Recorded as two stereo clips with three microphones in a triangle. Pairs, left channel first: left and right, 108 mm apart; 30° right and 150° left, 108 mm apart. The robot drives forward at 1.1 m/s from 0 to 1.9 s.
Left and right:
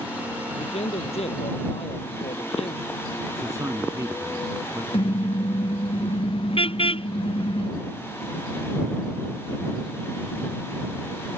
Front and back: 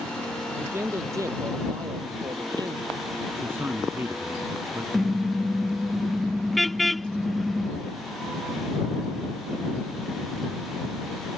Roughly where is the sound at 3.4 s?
Behind right.